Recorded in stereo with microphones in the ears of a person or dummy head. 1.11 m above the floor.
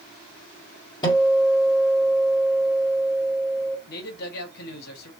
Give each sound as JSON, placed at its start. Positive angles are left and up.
{"t": 1.0, "sound": "a guitar", "side_deg": 25, "distance_m": 1.1}
{"t": 3.9, "sound": "a man speaking", "side_deg": 60, "distance_m": 1.5}